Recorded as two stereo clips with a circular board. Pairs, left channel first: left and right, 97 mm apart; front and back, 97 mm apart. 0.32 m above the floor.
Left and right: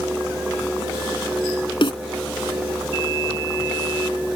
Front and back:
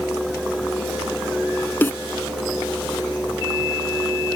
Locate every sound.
1.8 s a snare drum: 65° left